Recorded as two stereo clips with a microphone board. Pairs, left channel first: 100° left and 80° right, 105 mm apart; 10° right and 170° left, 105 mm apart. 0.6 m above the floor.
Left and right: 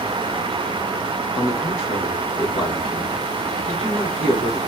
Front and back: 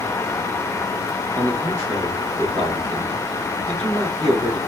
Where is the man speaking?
120° left, 2.5 m.